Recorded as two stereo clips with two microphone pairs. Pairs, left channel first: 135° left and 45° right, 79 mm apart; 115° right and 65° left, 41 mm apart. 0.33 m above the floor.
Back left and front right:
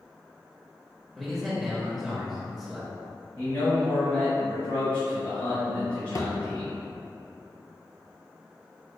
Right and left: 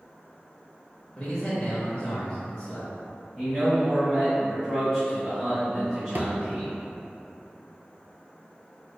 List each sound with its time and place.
1.2 s a man speaking: 125° right, 0.8 m
3.4 s a man speaking: 160° left, 1.7 m
6.2 s a thud: 100° left, 0.6 m